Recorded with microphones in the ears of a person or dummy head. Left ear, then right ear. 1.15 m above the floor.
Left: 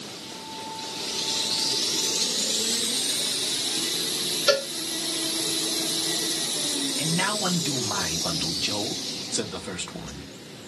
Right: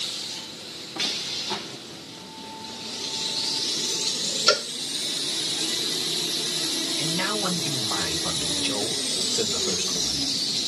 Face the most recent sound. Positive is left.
turn(degrees=30)  # may be behind; listen again after turning